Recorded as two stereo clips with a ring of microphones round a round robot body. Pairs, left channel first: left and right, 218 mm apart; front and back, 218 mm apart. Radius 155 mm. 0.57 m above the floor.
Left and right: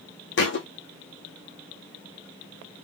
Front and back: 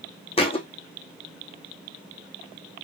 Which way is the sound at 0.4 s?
65° left.